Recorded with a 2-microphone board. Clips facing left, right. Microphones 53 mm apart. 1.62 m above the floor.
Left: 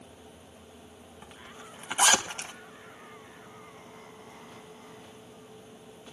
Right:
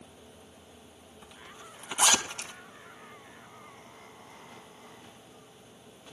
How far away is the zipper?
About 3 m.